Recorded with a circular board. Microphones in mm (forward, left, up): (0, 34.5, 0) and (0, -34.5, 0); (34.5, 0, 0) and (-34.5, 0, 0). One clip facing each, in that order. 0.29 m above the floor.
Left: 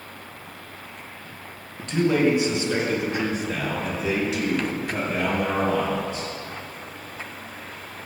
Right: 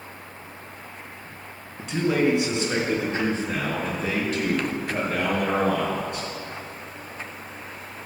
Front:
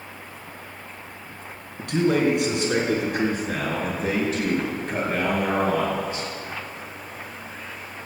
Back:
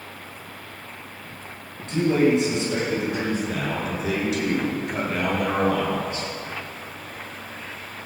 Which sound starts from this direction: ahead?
A man speaking, at 1.8 s.